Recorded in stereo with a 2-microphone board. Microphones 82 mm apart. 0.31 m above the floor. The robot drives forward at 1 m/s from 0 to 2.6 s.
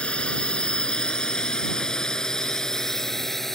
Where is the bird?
I don't hear a bird.